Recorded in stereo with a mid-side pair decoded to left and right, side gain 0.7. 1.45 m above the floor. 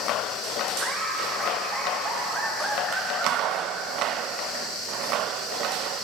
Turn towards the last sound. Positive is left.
turn(degrees=-30)